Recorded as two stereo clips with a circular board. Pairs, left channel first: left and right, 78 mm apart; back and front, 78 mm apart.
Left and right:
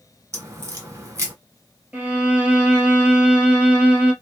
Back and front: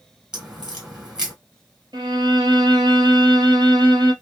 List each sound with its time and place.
0.3 s a crack: 75° right, 1.6 m
1.9 s a violin: 15° right, 1.1 m